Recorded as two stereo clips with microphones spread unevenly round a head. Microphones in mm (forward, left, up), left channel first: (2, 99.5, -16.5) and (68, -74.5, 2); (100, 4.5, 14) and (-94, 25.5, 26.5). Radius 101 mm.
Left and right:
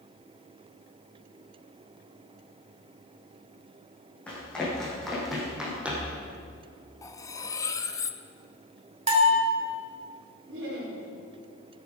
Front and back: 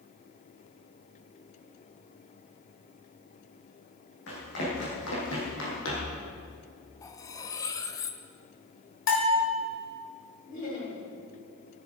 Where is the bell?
25° right, 2 m.